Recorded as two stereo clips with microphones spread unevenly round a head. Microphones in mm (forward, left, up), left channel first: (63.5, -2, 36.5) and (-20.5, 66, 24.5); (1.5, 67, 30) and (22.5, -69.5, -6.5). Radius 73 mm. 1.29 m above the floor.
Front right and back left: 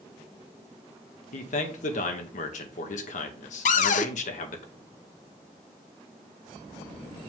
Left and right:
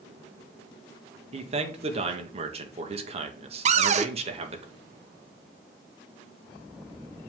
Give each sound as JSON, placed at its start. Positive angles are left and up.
{"t": 1.3, "sound": "a man speaking", "azimuth_deg": -40, "distance_m": 1.7}
{"t": 3.6, "sound": "a cupboard door", "azimuth_deg": -45, "distance_m": 0.7}